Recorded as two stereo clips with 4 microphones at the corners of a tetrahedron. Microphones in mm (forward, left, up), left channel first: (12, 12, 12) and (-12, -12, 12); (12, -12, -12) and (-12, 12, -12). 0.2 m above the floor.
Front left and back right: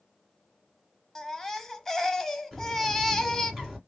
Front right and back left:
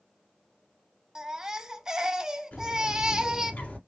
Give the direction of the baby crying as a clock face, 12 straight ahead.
9 o'clock.